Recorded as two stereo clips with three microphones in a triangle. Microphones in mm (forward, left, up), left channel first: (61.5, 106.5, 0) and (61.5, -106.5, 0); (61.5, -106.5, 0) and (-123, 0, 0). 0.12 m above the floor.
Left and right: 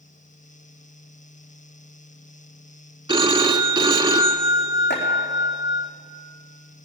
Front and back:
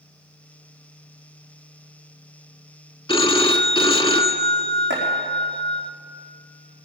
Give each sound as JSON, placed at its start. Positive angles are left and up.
{"t": 3.1, "sound": "a phone ringing", "azimuth_deg": -55, "distance_m": 0.7}
{"t": 4.9, "sound": "chopping", "azimuth_deg": 125, "distance_m": 5.0}